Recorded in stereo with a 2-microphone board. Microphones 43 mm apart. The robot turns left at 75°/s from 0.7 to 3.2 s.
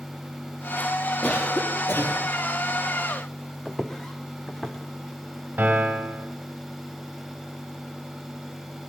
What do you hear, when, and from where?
1.2 s a cough: 165° left, 6.5 m; by 2.3 s 85° left, 6.5 m
3.6 s footsteps: 5° left (ahead or behind), 0.8 m; by 4.8 s 15° left (ahead or behind), 1.5 m
5.6 s a piano: 40° right (ahead or behind), 1.9 m